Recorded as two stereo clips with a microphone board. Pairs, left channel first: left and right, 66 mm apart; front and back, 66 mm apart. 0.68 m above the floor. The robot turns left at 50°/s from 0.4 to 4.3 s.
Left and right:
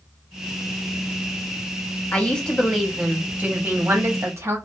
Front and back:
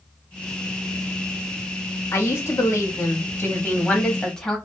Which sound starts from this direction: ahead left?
A woman speaking, at 2.1 s.